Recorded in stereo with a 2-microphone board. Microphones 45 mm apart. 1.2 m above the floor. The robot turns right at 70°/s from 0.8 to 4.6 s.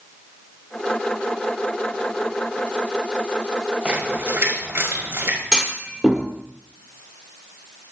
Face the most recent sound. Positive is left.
turn(degrees=-15)  # may be behind; listen again after turning